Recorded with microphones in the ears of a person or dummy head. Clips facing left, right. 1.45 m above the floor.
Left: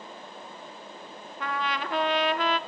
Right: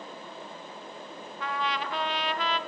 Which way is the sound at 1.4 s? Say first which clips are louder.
Left 1 dB; 45° left (ahead or behind).